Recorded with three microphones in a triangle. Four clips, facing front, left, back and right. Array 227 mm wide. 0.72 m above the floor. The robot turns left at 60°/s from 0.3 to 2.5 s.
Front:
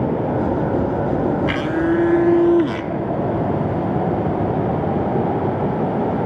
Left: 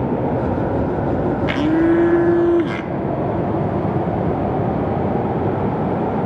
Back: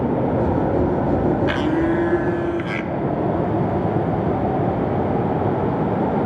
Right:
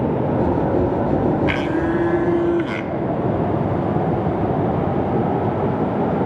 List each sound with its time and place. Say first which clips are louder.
1.5 s a blender: left 4 dB, even; 95° left, 0.8 m; by 2.9 s 35° left, 0.8 m